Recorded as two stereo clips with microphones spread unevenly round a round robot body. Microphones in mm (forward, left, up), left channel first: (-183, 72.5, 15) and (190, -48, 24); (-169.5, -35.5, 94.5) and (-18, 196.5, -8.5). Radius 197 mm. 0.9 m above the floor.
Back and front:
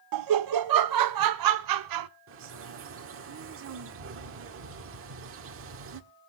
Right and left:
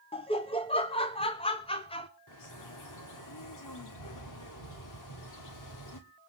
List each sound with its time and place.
0.1 s laughter: 35° right, 0.9 m
2.3 s a bird: 80° right, 1.7 m